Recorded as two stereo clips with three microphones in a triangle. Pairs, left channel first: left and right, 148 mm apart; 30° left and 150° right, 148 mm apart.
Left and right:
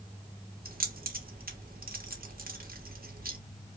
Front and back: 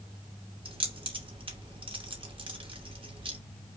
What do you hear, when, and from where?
0.7 s keys jangling: 95° right, 0.8 m